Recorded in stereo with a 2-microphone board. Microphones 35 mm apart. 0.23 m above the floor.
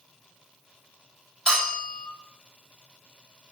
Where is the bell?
20° left (ahead or behind), 1.3 m.